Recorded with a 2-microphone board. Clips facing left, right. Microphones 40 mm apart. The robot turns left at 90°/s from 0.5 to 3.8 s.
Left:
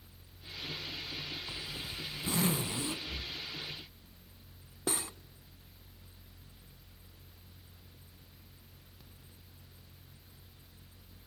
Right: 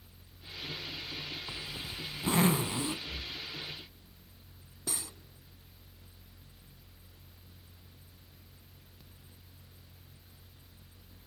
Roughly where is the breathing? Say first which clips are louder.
Even; left.